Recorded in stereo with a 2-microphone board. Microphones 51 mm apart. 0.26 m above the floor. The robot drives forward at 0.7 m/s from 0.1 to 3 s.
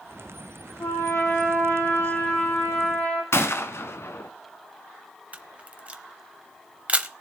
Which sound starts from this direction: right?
A camera shutter, at 5.3 s.